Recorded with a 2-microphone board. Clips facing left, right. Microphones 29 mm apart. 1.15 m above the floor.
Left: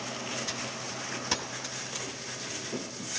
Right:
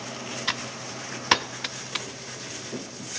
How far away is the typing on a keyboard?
About 0.8 m.